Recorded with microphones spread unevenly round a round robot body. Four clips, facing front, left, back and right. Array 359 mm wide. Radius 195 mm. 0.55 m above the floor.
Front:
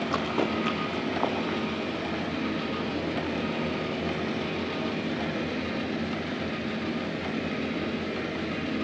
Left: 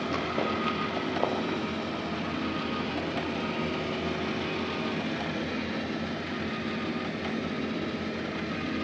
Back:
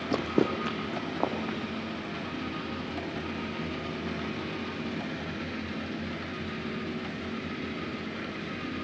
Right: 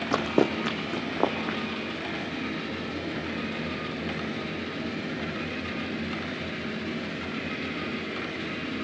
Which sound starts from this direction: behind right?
Running footsteps, at 0.1 s.